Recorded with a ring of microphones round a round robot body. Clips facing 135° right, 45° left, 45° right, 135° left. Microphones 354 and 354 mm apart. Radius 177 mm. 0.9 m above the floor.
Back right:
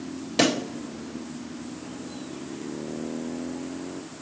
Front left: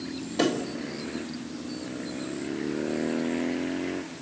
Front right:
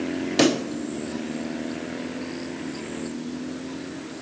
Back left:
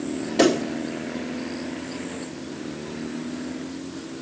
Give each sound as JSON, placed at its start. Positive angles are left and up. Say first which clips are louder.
{"t": 0.4, "sound": "a pop", "louder": "back right 2 dB, back left 2 dB", "azimuth_deg": -105, "distance_m": 1.6}